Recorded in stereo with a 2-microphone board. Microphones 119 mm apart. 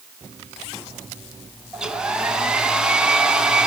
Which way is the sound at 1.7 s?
10° right (ahead or behind).